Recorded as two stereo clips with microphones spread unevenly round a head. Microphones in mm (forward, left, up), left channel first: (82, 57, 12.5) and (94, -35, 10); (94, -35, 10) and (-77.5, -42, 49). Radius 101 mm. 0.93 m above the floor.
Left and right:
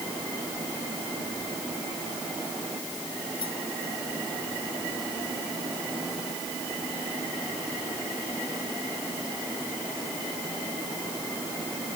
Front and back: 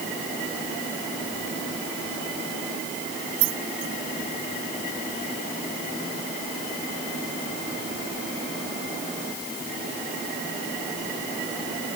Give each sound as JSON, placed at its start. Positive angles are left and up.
{"t": 3.4, "sound": "keys jangling", "azimuth_deg": 160}